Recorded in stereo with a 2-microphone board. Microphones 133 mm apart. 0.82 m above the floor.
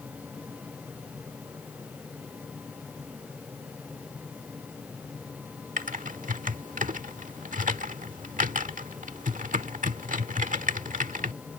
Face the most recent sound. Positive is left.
turn(degrees=-85)